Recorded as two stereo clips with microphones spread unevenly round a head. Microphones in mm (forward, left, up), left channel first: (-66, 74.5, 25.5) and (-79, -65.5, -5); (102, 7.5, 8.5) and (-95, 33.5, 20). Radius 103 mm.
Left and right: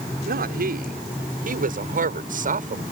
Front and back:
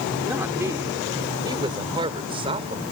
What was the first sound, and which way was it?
A woman speaking, 110° right.